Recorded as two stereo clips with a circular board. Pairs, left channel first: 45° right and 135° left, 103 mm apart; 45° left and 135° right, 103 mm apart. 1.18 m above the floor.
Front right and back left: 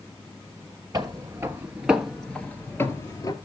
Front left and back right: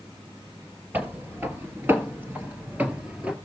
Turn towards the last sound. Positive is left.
turn(degrees=-60)